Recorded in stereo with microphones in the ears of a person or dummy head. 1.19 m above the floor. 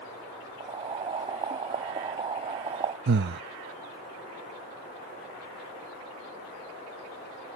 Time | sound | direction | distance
0.6 | boiling | 30° right (ahead or behind) | ?
3.1 | breathing | 55° right (ahead or behind) | ?